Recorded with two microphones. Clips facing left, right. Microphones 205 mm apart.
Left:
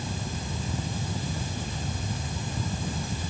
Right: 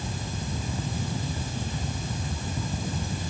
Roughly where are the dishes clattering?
No dishes clattering in this recording.